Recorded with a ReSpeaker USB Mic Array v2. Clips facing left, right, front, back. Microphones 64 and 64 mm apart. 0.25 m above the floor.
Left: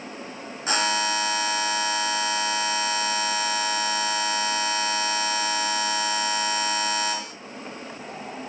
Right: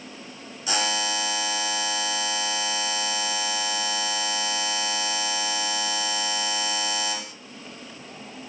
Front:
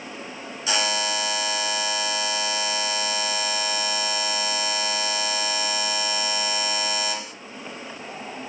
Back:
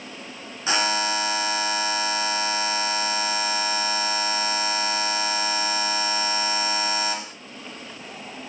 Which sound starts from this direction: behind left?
A buzzer, at 0.7 s.